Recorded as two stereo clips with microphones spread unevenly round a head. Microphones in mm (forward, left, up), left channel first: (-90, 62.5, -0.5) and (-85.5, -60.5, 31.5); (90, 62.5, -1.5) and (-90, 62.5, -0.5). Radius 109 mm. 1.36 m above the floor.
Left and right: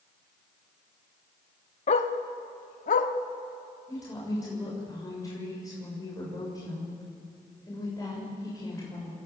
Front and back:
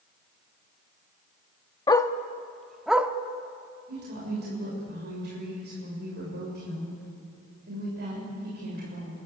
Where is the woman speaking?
155° left, 6.5 m.